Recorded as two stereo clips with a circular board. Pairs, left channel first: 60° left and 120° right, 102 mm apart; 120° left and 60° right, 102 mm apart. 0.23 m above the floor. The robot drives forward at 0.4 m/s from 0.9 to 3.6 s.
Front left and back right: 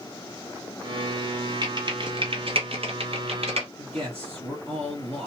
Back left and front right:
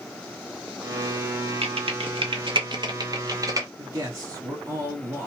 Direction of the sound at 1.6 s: 80° right.